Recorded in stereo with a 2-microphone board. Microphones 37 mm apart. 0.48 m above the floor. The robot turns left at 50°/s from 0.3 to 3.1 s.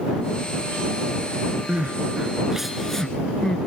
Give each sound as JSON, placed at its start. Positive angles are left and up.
{"t": 1.7, "sound": "crying", "side_deg": -55}